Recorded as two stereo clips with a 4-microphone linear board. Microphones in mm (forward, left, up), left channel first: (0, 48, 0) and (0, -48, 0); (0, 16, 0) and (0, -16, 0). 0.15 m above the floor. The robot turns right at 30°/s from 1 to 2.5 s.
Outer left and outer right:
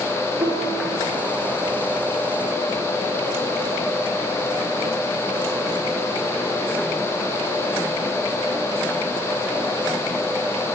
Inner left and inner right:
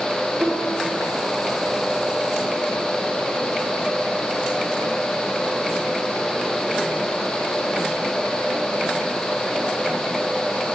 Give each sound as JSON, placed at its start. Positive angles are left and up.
{"t": 0.4, "sound": "a piano", "side_deg": -75, "distance_m": 5.5}